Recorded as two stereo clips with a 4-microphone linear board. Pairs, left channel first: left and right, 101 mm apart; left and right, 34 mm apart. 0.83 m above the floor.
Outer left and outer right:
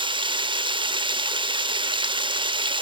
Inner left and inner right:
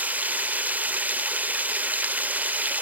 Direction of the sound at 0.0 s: 55° right (ahead or behind).